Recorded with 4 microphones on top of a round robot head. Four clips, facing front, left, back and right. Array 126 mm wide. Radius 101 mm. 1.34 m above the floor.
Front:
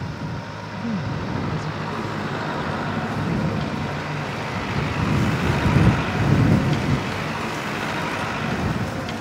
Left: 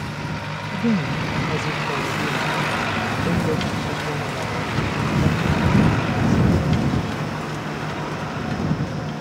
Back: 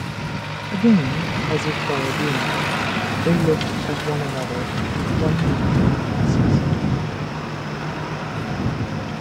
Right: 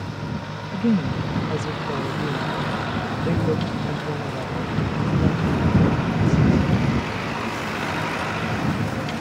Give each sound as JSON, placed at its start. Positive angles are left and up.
{"t": 0.7, "sound": "a woman speaking", "azimuth_deg": -170}